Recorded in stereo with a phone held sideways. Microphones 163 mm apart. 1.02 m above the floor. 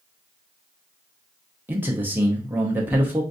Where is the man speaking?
10° right (ahead or behind), 0.6 m.